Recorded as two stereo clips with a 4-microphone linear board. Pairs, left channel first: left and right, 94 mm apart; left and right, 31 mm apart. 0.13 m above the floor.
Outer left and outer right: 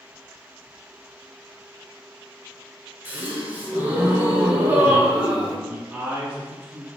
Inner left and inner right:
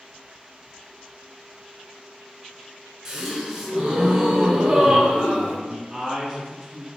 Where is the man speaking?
15° right (ahead or behind), 1.2 m.